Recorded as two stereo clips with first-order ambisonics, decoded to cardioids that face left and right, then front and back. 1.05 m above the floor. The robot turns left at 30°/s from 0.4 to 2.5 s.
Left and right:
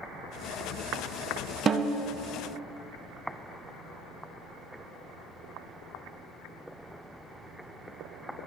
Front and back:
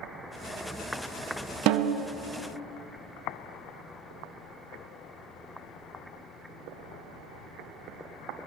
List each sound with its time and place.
1.7 s a snare drum: 155° right, 0.5 m; by 2.1 s 165° right, 0.5 m